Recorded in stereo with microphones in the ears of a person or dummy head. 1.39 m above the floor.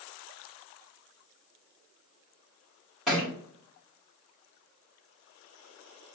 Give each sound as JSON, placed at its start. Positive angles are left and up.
{"t": 3.1, "sound": "a thud", "side_deg": 5, "distance_m": 1.9}